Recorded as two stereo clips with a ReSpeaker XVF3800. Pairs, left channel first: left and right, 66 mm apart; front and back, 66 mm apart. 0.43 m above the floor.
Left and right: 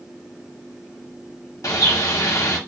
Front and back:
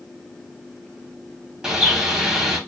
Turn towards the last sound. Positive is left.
turn(degrees=100)